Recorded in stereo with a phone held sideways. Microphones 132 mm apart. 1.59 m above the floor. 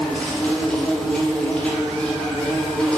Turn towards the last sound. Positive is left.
turn(degrees=5)  # may be behind; listen again after turning